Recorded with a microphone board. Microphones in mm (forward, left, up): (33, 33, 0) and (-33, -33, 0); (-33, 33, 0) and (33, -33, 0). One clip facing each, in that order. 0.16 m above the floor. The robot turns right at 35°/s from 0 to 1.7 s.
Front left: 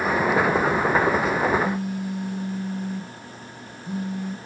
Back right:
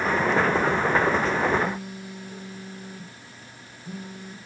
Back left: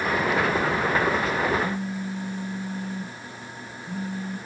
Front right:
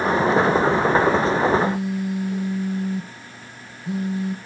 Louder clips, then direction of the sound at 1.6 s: Front left 4 dB, front right 6 dB; 50° right.